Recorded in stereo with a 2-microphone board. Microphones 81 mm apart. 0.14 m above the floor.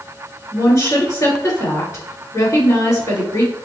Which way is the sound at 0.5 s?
45° left (ahead or behind).